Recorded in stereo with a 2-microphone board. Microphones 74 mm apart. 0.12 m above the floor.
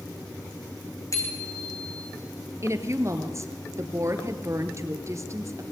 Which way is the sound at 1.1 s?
45° left (ahead or behind).